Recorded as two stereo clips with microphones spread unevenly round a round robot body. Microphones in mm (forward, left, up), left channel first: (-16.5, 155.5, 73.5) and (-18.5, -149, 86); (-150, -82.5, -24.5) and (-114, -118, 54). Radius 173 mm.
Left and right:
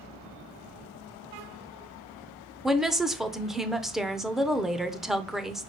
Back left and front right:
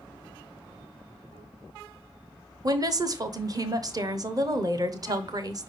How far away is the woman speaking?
About 0.9 m.